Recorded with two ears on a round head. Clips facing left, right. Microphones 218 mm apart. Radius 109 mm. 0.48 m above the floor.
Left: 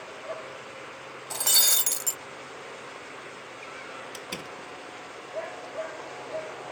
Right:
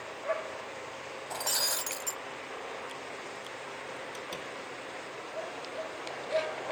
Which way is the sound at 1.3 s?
45° left (ahead or behind).